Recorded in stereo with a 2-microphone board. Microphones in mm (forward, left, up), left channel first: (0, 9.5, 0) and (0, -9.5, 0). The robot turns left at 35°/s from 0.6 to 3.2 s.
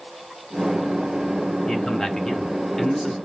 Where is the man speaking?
65° left, 1.2 m; by 3.1 s 15° left, 1.2 m.